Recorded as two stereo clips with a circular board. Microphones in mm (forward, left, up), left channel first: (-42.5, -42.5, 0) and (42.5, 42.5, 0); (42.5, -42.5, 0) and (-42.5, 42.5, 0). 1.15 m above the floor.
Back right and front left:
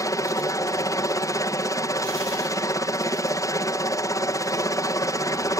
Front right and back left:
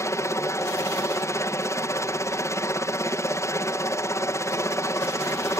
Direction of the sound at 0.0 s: 95° right.